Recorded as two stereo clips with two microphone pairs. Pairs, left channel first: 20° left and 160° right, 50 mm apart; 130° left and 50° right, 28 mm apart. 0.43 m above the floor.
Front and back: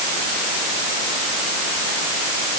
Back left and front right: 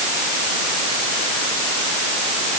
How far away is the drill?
I don't hear a drill.